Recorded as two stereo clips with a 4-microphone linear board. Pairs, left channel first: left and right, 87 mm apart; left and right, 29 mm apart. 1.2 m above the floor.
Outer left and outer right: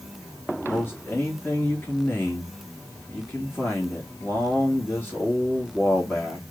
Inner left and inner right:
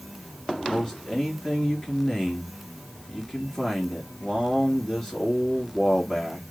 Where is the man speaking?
25° left (ahead or behind), 3 m.